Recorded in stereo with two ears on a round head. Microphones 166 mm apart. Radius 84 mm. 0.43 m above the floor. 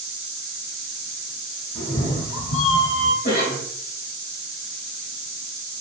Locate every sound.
1.8 s a cat meowing: 25° left (ahead or behind), 0.7 m; by 3.1 s 60° left (ahead or behind), 0.9 m
3.2 s a cough: 45° left (ahead or behind), 1.8 m